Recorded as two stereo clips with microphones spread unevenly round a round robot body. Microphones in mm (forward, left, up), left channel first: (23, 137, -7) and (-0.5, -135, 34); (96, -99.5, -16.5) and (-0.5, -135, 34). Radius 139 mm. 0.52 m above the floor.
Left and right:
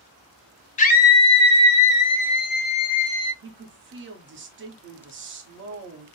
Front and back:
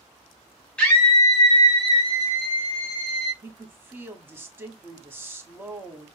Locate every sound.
0.8 s a scream: 50° left, 1.0 m; by 3.3 s 70° left, 3 m
3.4 s a woman speaking: 65° right, 1.3 m